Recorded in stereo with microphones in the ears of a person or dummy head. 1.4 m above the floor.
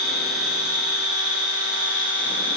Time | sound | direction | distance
0.0 | an insect | 55° right (ahead or behind) | 6.5 m